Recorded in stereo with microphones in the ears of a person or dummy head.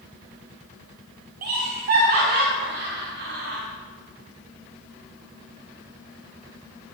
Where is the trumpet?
I don't hear a trumpet.